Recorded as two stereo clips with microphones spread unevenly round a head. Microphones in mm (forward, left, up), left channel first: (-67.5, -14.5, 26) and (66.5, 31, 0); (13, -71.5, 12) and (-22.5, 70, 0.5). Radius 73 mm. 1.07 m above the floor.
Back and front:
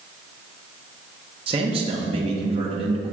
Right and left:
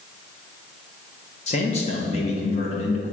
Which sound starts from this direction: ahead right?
A man speaking, at 1.5 s.